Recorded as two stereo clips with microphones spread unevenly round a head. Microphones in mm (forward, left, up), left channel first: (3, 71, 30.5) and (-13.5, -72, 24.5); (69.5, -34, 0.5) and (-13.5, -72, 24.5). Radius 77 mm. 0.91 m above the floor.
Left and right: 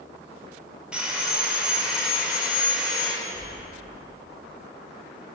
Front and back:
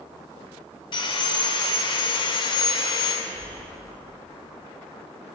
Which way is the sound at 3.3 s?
160° right.